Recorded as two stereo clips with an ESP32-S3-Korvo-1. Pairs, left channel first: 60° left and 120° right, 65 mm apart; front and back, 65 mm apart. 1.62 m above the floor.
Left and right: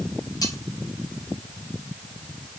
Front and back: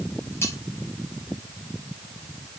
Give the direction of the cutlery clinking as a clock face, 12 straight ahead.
10 o'clock.